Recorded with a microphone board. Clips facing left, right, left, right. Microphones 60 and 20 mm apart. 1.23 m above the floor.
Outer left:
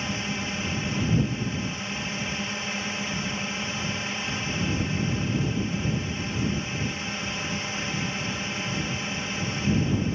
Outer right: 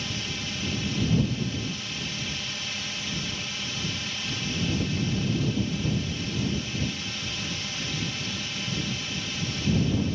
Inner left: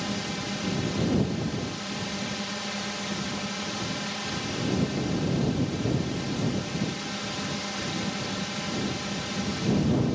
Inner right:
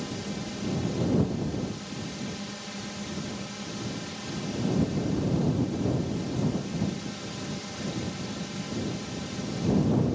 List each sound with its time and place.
0.0 s a drone: 30° left (ahead or behind)